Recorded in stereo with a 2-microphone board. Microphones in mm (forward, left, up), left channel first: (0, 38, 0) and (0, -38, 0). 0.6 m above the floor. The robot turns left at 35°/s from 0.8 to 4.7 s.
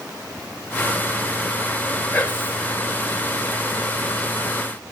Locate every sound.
2.1 s whispering: 20° left (ahead or behind), 2 m; by 2.6 s 35° left (ahead or behind), 2 m